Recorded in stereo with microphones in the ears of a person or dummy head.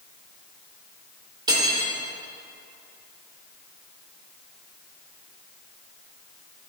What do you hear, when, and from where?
1.5 s cutlery clinking: 25° right (ahead or behind), 2.5 m